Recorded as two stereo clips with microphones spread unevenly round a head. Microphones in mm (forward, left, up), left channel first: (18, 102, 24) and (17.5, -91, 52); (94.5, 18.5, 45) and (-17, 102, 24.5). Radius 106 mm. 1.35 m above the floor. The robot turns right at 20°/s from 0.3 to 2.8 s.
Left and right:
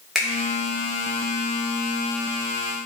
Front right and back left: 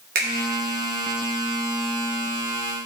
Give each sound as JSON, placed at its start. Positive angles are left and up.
{"t": 0.1, "sound": "a finger snap", "azimuth_deg": 180, "distance_m": 2.5}